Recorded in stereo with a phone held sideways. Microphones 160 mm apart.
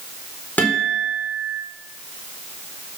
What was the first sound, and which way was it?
A guitar, 10° left (ahead or behind).